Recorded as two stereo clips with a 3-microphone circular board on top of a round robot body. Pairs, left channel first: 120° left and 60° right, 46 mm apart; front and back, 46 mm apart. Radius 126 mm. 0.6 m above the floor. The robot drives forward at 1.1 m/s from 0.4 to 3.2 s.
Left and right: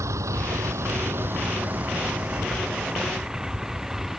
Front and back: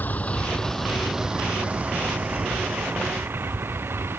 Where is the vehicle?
50° right; by 4.2 s 140° right.